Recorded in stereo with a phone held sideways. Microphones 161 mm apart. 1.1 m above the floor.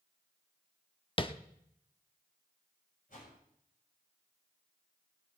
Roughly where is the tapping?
Left.